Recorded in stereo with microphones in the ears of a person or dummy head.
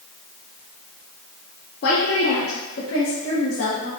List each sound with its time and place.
1.8 s a woman speaking: 55° left (ahead or behind), 0.9 m; by 3.9 s 65° left (ahead or behind), 1.6 m